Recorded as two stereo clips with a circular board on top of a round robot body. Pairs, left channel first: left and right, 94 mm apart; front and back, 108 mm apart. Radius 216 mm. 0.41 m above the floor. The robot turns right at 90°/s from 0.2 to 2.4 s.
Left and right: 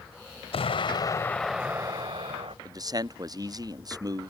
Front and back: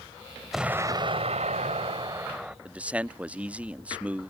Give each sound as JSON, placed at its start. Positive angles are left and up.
{"t": 0.5, "sound": "an explosion", "azimuth_deg": 90}
{"t": 2.6, "sound": "a man speaking", "azimuth_deg": -105}